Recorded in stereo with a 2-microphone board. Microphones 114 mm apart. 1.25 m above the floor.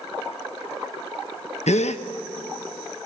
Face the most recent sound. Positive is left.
turn(degrees=80)